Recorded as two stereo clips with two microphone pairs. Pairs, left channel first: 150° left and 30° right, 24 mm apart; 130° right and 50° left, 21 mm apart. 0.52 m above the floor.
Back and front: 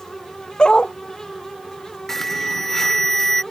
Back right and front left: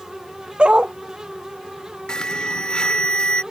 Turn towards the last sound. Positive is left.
turn(degrees=-140)